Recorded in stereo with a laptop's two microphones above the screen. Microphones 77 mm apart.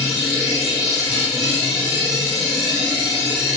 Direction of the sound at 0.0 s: Centre (ahead or behind).